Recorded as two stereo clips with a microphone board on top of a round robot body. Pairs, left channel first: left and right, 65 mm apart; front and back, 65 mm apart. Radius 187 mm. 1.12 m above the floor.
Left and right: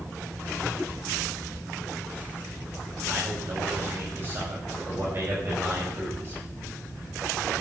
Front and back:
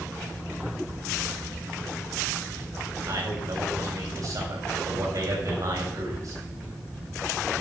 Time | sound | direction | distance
3.1 | a man speaking | 145° right | 7.5 m